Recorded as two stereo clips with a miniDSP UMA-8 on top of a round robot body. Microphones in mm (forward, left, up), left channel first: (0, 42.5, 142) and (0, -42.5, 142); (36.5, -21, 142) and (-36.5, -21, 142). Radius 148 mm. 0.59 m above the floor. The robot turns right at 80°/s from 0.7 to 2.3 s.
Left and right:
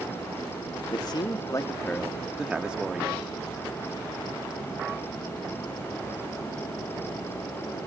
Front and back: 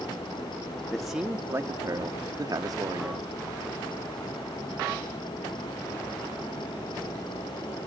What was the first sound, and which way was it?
A man speaking, 75° left.